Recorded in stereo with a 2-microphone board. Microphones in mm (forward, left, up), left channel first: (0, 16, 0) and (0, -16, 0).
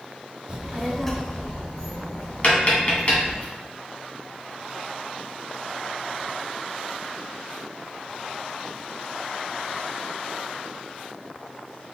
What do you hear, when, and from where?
0.5 s a child speaking: 25° right (ahead or behind), 0.6 m; by 3.4 s 60° left (ahead or behind), 1.7 m
2.4 s tapping: 40° left (ahead or behind), 1.3 m